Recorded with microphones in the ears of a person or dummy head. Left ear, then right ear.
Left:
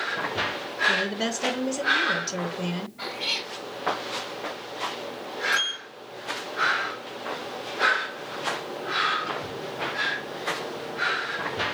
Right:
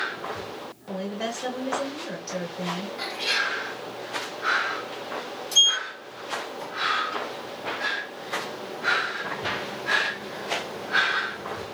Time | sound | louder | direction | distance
0.9 | a woman speaking | left 5 dB | 25° left (ahead or behind) | 0.8 m
3.0 | a cat meowing | right 4 dB | 80° right | 3 m
5.5 | a sliding door | right 9 dB | 75° right (ahead or behind) | 2.5 m